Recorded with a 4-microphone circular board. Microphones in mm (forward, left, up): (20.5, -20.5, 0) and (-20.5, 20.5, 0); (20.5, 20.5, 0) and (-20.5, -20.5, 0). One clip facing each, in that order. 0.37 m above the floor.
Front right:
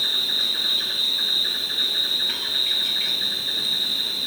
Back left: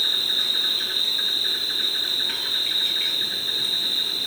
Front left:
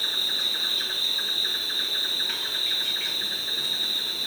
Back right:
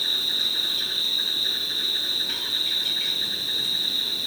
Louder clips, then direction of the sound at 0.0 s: Even, back right 1 dB; 60° left.